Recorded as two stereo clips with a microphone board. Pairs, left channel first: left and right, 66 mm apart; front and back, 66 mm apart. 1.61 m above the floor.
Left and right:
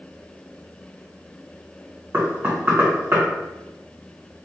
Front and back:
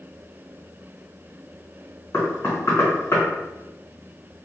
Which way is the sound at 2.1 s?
40° right.